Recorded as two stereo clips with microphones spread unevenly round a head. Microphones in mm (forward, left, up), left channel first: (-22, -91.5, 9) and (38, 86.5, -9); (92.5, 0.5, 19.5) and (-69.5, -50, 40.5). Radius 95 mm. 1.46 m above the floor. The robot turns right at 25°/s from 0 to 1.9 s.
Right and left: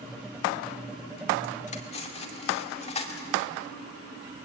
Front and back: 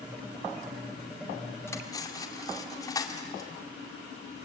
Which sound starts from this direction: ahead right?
Cutlery clinking, at 1.7 s.